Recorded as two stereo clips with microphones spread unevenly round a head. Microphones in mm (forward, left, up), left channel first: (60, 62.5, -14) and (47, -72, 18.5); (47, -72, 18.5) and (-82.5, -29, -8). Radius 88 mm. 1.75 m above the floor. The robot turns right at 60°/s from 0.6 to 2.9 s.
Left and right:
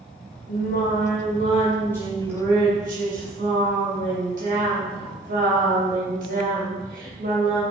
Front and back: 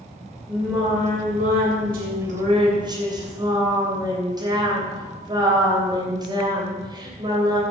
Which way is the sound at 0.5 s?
85° left.